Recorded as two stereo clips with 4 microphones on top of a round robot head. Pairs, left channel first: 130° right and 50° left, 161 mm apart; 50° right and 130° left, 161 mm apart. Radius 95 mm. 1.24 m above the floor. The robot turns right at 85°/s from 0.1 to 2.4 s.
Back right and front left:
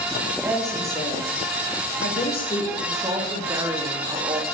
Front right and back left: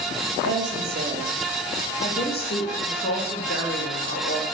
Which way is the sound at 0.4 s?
120° left.